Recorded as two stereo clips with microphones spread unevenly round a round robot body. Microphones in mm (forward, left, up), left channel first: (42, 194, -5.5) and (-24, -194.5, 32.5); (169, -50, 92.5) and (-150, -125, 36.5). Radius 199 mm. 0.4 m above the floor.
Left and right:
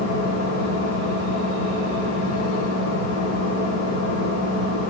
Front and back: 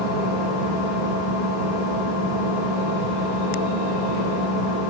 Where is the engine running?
35° left, 1.1 m.